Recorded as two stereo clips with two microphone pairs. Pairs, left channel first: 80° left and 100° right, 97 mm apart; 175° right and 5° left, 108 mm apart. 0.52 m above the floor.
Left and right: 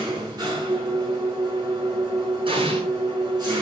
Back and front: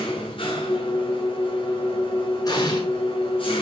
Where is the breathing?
No breathing in this recording.